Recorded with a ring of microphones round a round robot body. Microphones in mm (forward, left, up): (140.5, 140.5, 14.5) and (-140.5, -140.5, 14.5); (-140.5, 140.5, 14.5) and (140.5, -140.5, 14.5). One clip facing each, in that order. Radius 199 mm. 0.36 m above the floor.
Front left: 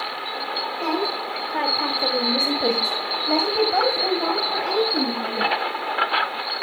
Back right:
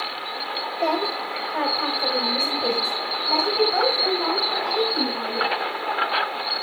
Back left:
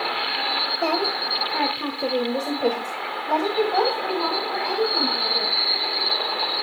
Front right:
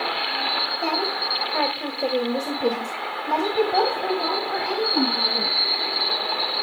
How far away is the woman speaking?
About 2 m.